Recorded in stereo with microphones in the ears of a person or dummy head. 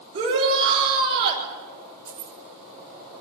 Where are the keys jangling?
20° right (ahead or behind), 4.5 m.